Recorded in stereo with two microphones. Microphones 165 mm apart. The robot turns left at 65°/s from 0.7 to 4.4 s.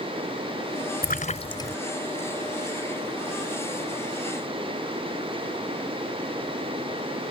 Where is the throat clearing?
No throat clearing in this recording.